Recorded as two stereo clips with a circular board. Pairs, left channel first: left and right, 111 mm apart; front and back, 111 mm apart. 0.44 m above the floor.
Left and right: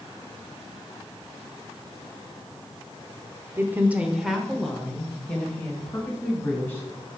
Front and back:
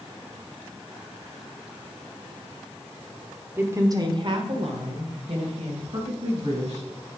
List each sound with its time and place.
3.6 s a woman speaking: 130° right, 1.0 m; by 7.2 s 160° left, 3.5 m